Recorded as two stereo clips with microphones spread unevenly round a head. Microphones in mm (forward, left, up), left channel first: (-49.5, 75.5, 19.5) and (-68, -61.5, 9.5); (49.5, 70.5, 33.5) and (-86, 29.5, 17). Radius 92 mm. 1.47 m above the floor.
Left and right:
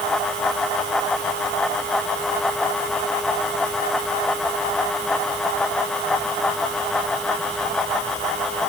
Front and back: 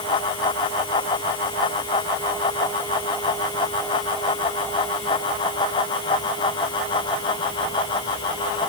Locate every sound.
Only background noise.